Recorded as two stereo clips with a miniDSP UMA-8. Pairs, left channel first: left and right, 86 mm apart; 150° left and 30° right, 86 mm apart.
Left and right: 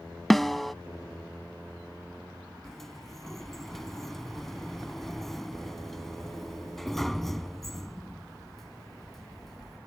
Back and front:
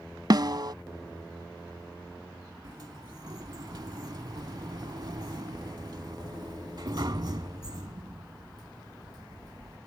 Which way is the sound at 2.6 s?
5° left.